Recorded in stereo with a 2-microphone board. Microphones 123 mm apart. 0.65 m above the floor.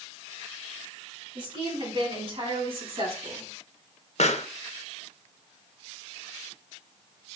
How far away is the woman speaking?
About 7 m.